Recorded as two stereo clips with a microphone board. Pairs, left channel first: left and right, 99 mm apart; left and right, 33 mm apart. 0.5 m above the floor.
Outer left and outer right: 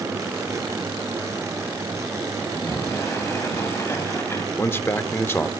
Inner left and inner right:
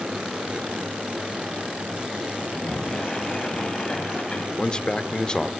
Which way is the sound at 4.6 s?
25° left (ahead or behind).